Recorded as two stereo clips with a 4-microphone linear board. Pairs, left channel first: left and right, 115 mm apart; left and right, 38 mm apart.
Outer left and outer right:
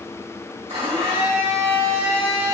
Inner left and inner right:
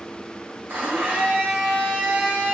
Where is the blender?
60° right (ahead or behind), 1.2 m.